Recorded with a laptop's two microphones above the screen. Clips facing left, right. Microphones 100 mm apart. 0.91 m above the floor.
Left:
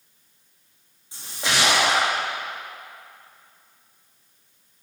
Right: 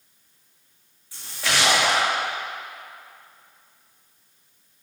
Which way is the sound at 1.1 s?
20° left (ahead or behind).